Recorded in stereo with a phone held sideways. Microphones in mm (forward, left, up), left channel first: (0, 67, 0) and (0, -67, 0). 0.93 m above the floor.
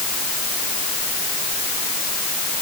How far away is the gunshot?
I don't hear a gunshot.